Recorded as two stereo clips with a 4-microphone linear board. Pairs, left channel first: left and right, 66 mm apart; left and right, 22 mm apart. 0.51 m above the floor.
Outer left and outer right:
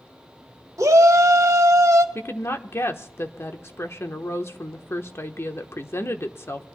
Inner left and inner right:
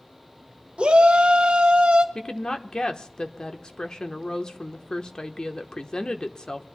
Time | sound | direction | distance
0.8 | a shout | 55° right (ahead or behind) | 1.6 m
2.1 | a woman speaking | 40° left (ahead or behind) | 1.1 m